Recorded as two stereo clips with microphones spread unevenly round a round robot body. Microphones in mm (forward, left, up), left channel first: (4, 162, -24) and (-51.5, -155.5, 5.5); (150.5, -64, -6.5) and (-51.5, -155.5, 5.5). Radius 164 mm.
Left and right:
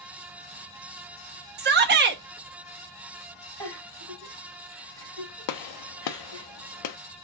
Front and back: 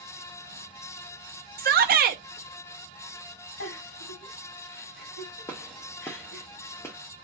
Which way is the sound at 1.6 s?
145° right.